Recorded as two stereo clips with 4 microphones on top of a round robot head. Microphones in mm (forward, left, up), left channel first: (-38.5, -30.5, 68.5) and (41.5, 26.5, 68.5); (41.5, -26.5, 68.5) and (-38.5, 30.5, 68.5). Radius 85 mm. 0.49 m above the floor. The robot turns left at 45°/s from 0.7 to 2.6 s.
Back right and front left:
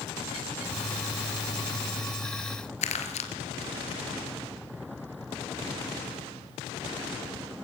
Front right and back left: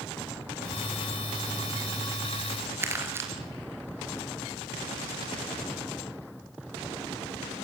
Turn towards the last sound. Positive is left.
turn(degrees=-150)